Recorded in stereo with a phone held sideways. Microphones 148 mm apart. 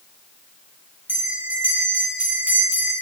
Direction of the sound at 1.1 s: 15° right (ahead or behind).